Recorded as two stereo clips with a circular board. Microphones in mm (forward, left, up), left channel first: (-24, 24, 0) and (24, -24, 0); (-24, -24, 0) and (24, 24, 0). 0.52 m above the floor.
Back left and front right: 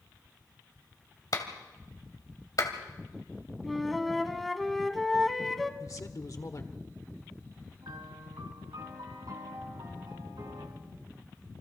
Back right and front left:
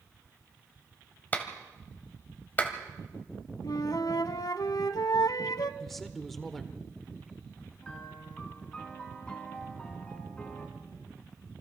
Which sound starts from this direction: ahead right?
A piano, at 7.8 s.